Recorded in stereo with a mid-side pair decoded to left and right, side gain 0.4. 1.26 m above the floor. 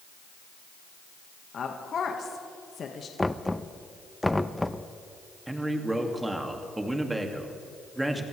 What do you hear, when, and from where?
1.5 s a woman speaking: 55° left, 1.7 m
3.2 s knocking: 15° left, 0.7 m
5.5 s a man speaking: 15° right, 2.5 m